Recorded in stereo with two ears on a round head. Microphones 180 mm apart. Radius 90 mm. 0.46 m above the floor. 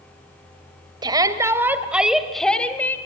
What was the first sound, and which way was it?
A shout, 20° right (ahead or behind).